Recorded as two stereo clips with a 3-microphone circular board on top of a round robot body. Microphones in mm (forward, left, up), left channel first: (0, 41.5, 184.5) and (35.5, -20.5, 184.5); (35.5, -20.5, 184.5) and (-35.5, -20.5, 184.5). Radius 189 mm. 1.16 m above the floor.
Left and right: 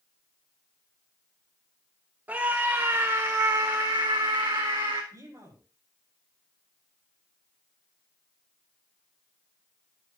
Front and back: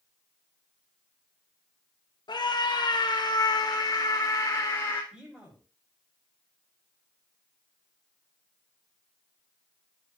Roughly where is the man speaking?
Right.